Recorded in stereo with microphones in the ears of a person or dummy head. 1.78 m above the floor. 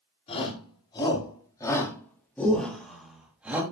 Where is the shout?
30° left (ahead or behind), 6 m; by 3.6 s 10° right (ahead or behind), 4 m.